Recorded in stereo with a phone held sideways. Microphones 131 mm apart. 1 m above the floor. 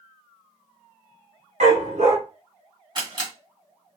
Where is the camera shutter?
40° right (ahead or behind), 2 m.